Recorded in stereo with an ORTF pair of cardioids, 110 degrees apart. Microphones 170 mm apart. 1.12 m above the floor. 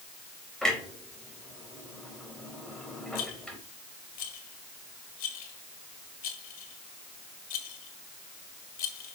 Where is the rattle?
65° left, 2.0 m.